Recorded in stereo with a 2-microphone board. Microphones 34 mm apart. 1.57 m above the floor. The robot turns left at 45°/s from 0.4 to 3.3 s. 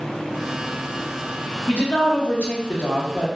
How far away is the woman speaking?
About 1.2 m.